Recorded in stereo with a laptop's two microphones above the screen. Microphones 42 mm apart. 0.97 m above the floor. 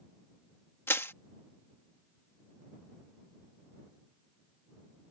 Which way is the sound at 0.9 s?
70° left (ahead or behind).